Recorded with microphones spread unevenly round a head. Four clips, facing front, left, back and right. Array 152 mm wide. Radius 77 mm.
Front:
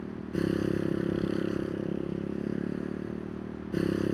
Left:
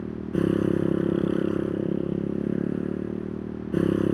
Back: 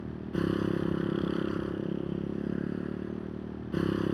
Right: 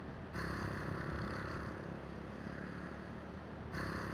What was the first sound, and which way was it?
A motorcycle, 85° left.